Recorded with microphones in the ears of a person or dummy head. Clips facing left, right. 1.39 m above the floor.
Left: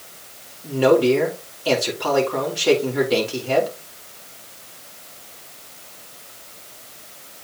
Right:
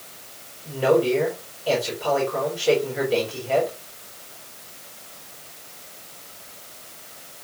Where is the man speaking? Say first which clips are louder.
Left 4 dB; 85° left, 4 m.